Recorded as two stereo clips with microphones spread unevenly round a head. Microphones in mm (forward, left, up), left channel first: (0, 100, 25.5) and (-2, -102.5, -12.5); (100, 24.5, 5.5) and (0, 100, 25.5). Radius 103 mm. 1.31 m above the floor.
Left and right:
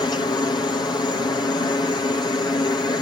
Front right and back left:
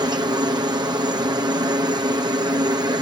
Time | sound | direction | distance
0.0 | a helicopter | 155° left | ?